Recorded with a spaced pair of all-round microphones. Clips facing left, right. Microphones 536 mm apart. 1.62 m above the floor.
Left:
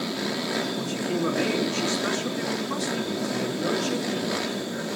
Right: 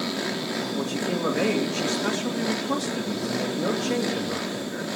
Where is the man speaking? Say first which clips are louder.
Right 3 dB; 75° right (ahead or behind), 3 m.